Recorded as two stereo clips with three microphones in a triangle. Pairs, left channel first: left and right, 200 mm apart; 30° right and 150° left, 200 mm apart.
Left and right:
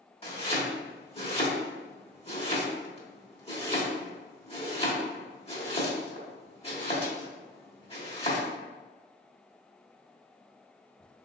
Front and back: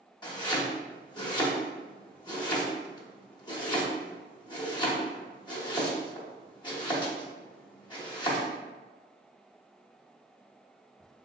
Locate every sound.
0.2 s chopping: 35° left, 1.0 m